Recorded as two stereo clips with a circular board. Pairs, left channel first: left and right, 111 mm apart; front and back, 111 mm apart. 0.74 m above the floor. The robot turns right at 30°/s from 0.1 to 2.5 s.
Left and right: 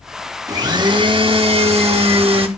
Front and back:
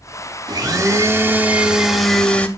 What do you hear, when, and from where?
0.5 s a blender: 135° right, 0.7 m; by 2.5 s 75° right, 0.7 m